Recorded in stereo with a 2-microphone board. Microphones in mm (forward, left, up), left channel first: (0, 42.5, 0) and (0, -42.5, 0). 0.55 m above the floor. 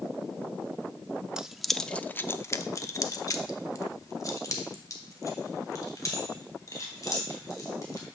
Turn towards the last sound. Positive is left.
turn(degrees=40)  # may be behind; listen again after turning